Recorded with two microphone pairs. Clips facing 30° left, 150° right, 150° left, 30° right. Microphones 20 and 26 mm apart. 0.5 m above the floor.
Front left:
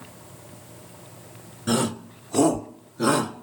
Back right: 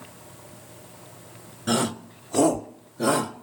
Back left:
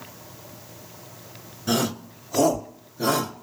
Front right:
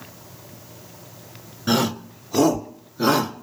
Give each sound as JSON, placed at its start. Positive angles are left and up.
{"t": 1.7, "sound": "a shout", "azimuth_deg": -75, "distance_m": 1.4}